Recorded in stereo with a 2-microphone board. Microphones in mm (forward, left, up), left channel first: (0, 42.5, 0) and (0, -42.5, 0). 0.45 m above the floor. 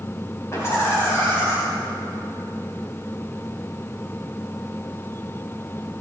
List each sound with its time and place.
0.5 s laughter: 30° left (ahead or behind), 2.5 m